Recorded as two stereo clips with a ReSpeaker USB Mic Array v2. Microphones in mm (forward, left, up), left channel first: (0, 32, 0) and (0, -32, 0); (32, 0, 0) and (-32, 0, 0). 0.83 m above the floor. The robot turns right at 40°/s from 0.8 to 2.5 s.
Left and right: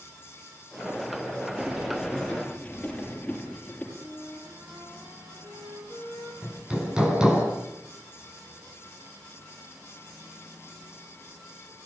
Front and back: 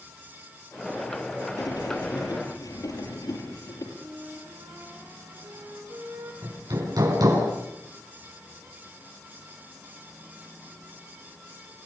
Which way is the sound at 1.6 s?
20° right.